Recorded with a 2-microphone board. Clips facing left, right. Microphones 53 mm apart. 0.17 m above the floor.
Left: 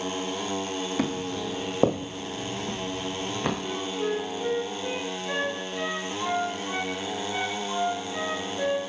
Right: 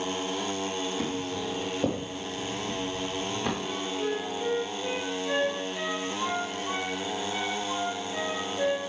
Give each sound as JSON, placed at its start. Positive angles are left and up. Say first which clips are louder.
{"t": 1.0, "sound": "footsteps", "louder": "left 2 dB", "side_deg": 85, "distance_m": 1.7}
{"t": 3.6, "sound": "a flute", "louder": "left 1 dB", "side_deg": 10, "distance_m": 2.0}